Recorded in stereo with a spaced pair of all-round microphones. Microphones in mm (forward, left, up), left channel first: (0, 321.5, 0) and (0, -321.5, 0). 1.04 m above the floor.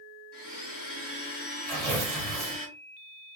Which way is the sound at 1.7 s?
65° right (ahead or behind).